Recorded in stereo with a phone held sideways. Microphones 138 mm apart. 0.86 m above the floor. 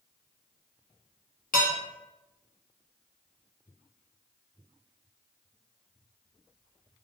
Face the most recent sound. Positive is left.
turn(degrees=80)